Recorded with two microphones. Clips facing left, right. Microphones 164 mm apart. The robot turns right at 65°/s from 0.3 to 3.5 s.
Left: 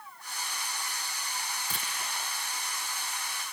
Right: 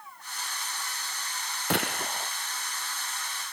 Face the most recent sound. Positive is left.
turn(degrees=45)